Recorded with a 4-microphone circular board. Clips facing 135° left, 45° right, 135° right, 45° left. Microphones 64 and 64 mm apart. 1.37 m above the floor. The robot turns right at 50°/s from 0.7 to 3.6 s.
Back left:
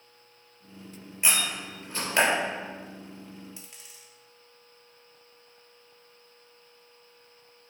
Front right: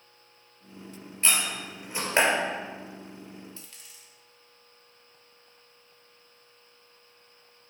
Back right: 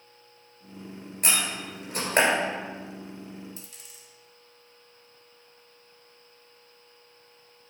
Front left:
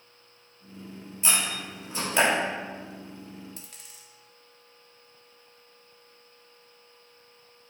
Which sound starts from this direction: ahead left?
A dropped coin, at 3.6 s.